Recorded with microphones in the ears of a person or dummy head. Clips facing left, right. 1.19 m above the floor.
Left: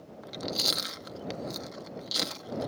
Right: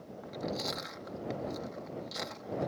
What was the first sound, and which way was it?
Chewing, 45° left (ahead or behind).